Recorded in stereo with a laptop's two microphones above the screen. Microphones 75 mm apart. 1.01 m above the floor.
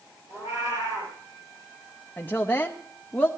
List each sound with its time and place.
0.3 s a cat meowing: 40° right (ahead or behind), 6.5 m
2.2 s a woman speaking: 20° left (ahead or behind), 0.9 m